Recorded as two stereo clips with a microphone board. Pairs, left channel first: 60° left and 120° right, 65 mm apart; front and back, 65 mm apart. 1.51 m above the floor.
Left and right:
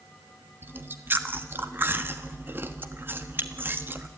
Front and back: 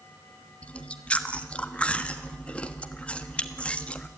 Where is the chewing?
70° right, 1.3 m.